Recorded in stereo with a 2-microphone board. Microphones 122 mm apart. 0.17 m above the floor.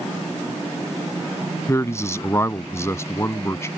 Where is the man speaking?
25° left (ahead or behind).